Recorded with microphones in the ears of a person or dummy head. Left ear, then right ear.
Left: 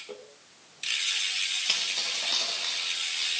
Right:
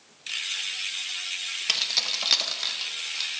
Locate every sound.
1.7 s keys jangling: 15° right (ahead or behind), 0.7 m; by 3.3 s 75° right (ahead or behind), 2.5 m